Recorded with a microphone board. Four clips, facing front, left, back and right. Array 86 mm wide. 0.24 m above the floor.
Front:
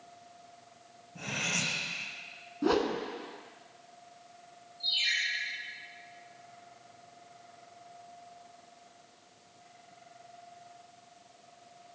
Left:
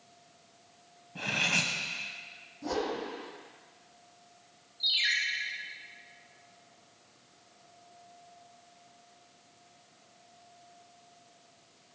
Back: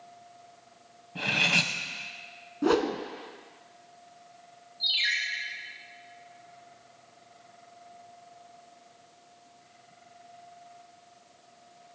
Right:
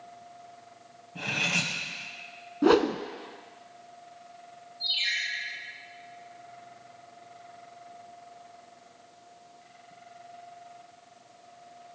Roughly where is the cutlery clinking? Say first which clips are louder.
Right 1 dB, back 7 dB; behind.